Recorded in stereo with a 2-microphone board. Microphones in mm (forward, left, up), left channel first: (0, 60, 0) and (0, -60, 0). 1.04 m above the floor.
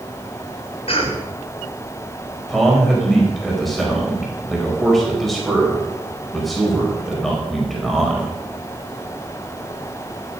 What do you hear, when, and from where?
0.9 s a cough: 55° left (ahead or behind), 3.5 m
2.5 s a man speaking: centre (ahead or behind), 4.5 m